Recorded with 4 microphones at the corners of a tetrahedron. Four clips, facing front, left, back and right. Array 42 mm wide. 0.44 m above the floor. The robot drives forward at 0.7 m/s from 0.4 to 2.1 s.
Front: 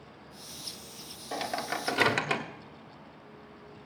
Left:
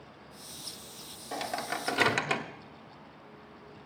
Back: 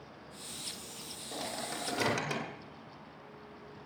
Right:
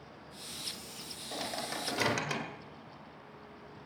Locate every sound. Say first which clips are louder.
1.3 s a microwave: left 4 dB, front 6 dB; 25° left, 1.9 m; by 2.4 s 35° left, 1.5 m